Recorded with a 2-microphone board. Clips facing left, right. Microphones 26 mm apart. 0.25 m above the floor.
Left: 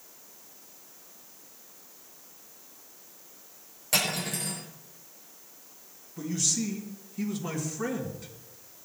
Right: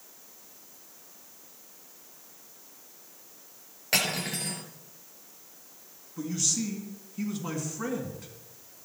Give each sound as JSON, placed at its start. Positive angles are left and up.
{"t": 3.9, "sound": "cutlery clinking", "side_deg": -25, "distance_m": 3.5}
{"t": 6.2, "sound": "a man speaking", "side_deg": -10, "distance_m": 2.5}